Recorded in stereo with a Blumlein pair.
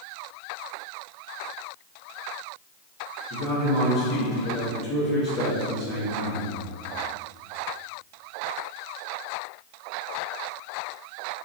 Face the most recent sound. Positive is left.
turn(degrees=30)